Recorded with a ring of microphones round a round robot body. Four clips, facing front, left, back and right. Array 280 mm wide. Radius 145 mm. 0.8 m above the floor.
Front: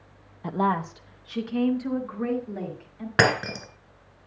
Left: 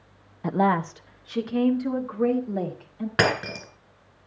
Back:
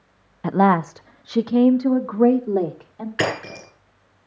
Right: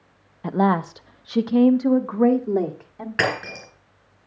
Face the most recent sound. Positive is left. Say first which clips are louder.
# left 1 dB, front 2 dB
turn(degrees=20)